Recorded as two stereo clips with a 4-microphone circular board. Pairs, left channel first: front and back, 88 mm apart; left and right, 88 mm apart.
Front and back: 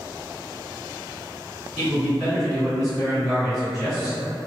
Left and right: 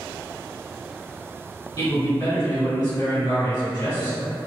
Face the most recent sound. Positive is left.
turn(degrees=95)